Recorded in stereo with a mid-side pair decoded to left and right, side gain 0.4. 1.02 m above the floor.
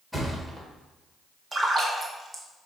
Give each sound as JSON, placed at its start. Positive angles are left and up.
{"t": 0.1, "sound": "a thud", "azimuth_deg": 0, "distance_m": 1.4}
{"t": 1.5, "sound": "a splash", "azimuth_deg": -30, "distance_m": 1.1}